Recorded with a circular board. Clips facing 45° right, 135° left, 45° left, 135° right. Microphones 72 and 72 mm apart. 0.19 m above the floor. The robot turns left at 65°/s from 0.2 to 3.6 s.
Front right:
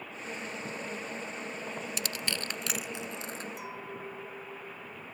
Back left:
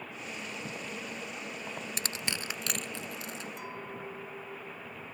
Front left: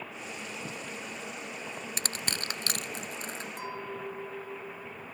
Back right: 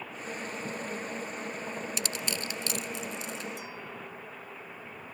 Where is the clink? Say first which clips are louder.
Even, front left 4 dB; 40° left; by 5.0 s 35° left.